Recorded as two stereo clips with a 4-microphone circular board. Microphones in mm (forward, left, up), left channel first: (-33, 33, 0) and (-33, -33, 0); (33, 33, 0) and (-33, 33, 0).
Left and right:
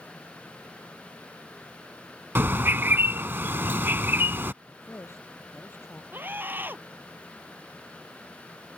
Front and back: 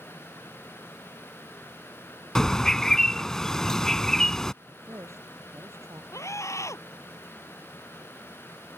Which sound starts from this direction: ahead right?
A scream, at 6.1 s.